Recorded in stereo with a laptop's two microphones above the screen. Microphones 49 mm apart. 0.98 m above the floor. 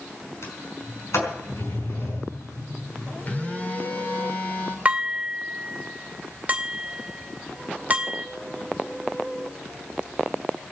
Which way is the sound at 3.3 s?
35° left (ahead or behind).